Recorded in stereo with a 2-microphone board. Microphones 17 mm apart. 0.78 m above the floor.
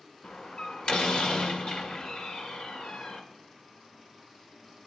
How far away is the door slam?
About 2.5 m.